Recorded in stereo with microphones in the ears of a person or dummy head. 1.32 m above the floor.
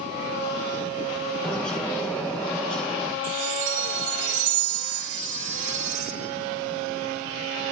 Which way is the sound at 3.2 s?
65° right (ahead or behind).